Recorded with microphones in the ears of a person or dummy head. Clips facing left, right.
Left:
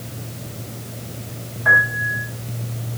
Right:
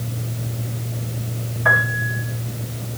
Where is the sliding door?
No sliding door in this recording.